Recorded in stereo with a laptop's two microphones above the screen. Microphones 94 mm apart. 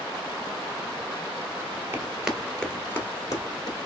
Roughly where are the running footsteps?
Centre.